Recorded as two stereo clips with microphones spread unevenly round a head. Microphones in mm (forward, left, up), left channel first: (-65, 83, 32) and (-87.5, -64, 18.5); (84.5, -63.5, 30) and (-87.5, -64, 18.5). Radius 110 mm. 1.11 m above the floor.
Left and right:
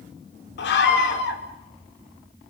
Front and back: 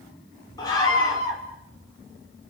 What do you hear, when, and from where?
0.6 s a scream: 75° left, 2.5 m